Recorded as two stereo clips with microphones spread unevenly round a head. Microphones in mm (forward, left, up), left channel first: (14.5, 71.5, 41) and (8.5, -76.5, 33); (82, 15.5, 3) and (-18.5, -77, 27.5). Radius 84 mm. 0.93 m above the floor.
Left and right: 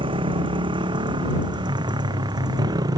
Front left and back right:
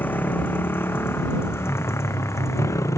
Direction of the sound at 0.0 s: 35° right.